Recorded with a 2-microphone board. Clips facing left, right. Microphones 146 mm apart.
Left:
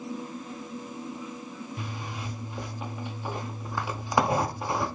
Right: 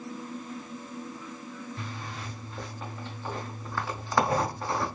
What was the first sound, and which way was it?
A zipper, 15° left (ahead or behind).